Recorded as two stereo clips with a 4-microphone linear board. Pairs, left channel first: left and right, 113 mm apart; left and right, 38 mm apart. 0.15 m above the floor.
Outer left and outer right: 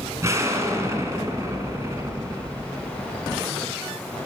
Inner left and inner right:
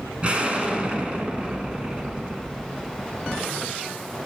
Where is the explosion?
30° right (ahead or behind), 1.3 m.